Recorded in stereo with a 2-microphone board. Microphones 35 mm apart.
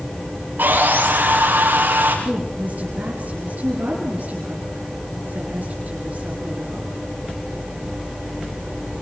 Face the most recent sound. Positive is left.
turn(degrees=-45)  # may be behind; listen again after turning